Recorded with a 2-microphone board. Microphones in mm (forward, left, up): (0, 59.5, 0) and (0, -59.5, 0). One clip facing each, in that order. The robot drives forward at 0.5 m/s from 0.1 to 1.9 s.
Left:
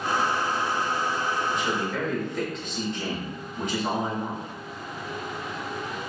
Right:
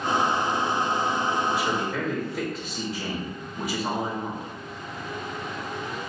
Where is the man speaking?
5° right (ahead or behind), 1.4 m.